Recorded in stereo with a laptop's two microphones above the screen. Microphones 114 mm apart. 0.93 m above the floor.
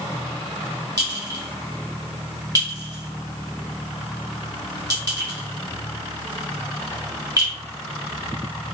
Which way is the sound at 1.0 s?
35° right (ahead or behind).